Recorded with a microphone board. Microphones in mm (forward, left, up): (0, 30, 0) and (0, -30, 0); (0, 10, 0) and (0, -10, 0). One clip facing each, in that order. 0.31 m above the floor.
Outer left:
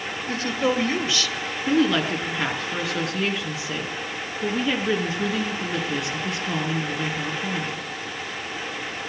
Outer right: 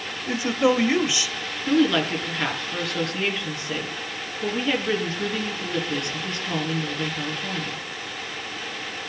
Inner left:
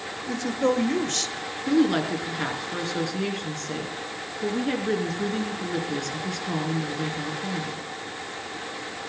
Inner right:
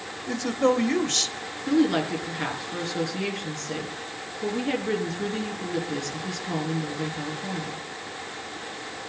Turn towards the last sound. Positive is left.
turn(degrees=5)  # may be behind; listen again after turning